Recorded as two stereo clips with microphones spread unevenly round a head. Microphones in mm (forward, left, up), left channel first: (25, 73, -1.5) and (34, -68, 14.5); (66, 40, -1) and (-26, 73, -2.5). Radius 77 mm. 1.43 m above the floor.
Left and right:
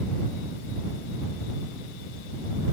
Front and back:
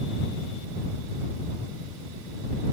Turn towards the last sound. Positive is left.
No sound to turn to.